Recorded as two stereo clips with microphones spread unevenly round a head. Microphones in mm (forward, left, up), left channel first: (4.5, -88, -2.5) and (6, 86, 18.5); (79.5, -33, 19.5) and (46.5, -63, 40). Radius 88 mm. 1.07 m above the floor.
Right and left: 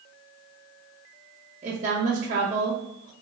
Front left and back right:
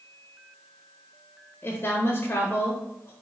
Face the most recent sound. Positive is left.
turn(degrees=30)